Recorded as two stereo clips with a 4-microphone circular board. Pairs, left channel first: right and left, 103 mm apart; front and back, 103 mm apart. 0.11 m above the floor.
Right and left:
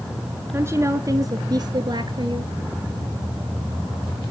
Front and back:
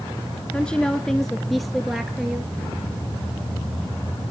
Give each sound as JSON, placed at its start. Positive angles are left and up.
{"t": 0.5, "sound": "a woman speaking", "azimuth_deg": 65, "distance_m": 1.3}